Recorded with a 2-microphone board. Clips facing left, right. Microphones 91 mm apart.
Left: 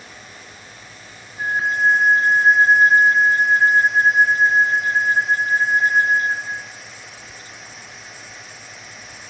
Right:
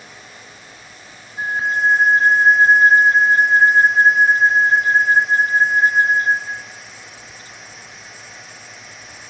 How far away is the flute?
About 6.5 m.